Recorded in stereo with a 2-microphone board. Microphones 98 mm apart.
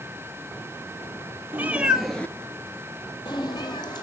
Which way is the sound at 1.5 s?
20° right (ahead or behind).